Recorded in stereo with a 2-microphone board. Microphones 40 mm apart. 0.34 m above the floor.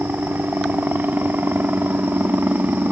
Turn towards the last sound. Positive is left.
turn(degrees=-50)  # may be behind; listen again after turning